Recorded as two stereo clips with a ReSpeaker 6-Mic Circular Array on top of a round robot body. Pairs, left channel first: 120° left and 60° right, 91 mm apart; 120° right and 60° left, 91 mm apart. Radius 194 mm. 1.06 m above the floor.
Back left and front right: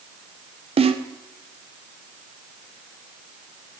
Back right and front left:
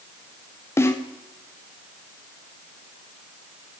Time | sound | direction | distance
0.8 | a snare drum | 55° right | 0.6 m